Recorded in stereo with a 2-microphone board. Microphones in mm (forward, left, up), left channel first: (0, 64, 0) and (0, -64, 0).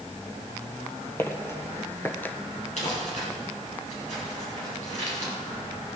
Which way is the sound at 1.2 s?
20° left (ahead or behind).